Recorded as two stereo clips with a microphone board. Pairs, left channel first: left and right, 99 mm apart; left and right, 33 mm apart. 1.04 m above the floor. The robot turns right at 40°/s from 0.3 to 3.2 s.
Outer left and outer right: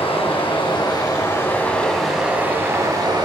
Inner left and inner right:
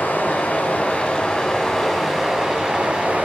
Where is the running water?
110° left, 4.5 m; by 3.3 s 135° right, 4.5 m.